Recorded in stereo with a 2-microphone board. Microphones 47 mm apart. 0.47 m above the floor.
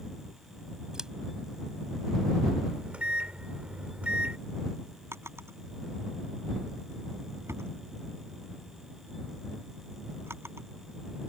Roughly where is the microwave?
Right.